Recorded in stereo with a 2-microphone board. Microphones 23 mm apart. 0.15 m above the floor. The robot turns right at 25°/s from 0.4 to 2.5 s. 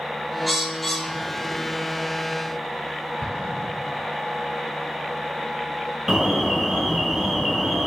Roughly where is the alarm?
Centre.